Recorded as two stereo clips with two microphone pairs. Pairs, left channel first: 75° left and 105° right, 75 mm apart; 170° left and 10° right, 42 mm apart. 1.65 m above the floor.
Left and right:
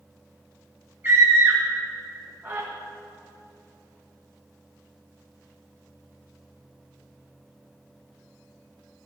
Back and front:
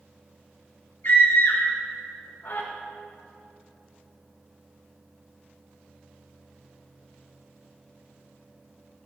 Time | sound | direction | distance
1.0 | a scream | 165° right | 1.9 m